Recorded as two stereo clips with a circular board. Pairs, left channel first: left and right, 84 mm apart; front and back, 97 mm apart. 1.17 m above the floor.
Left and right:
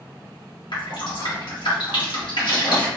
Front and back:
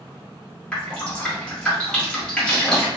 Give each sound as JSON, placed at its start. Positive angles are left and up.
{"t": 0.7, "sound": "dripping", "azimuth_deg": 80, "distance_m": 1.2}